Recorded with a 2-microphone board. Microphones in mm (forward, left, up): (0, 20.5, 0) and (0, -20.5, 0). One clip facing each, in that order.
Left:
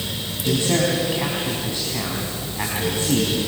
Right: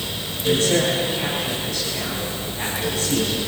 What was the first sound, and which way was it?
A man speaking, 25° left (ahead or behind).